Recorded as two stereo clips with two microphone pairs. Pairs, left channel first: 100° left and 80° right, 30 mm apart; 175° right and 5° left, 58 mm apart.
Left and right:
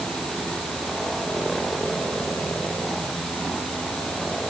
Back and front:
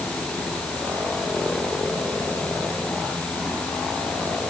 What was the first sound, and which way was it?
Only background noise.